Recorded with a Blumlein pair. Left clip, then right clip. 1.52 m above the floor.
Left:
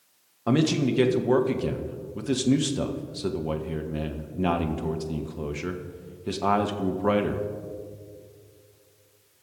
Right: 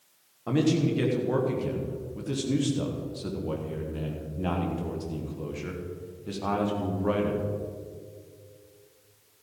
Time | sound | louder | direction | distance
0.5 | a man speaking | left 2 dB | 70° left | 1.4 m